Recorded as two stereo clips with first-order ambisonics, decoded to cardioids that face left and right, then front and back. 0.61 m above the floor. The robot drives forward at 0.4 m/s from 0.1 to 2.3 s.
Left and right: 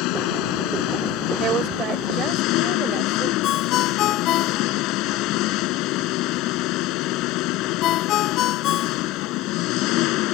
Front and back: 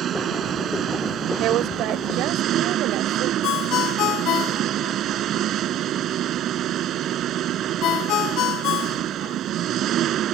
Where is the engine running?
120° left; by 10.3 s 125° left.